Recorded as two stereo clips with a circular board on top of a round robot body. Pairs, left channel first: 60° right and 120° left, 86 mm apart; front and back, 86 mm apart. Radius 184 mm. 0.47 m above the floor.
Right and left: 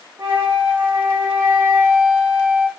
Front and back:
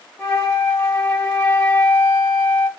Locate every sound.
0.2 s a flute: 60° left, 1.8 m